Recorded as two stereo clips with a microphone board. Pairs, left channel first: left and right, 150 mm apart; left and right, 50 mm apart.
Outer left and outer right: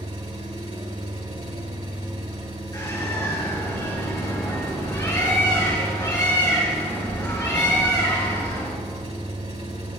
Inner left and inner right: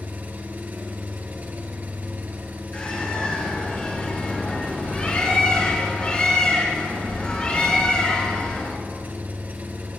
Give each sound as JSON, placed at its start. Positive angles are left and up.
{"t": 0.0, "sound": "an engine running", "side_deg": -45, "distance_m": 1.8}
{"t": 2.7, "sound": "a bird", "side_deg": 25, "distance_m": 3.5}